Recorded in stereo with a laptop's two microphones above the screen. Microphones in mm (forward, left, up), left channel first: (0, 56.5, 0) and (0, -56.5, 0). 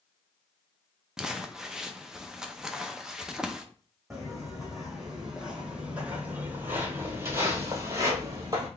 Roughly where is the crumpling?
Centre.